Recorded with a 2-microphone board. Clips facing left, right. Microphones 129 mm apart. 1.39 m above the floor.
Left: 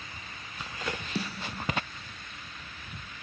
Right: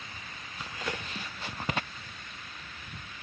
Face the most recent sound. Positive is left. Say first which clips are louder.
# left 5 dB
turn(degrees=80)